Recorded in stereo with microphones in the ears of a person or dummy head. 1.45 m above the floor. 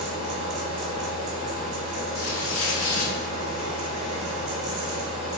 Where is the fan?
30° right (ahead or behind), 1.8 m.